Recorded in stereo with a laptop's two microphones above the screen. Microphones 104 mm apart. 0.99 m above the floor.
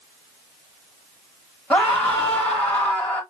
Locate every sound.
1.7 s a scream: 15° left (ahead or behind), 1.4 m